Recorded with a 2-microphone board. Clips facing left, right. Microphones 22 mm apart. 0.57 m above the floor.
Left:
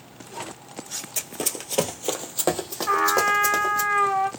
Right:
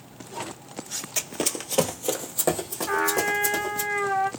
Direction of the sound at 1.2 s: 25° right (ahead or behind).